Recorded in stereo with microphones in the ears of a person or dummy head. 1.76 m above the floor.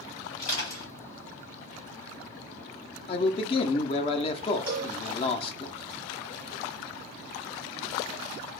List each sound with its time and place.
0.4 s crushing: 45° left (ahead or behind), 1.5 m
3.1 s a man speaking: 35° left (ahead or behind), 0.5 m
4.7 s a cowbell: 20° right (ahead or behind), 1.0 m